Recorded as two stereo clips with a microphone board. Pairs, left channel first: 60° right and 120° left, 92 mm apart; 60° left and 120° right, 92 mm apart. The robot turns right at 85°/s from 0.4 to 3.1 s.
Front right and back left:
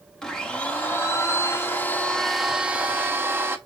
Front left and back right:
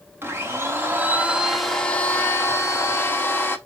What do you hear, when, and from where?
0.2 s a blender: 135° right, 0.8 m; by 3.6 s 95° left, 0.8 m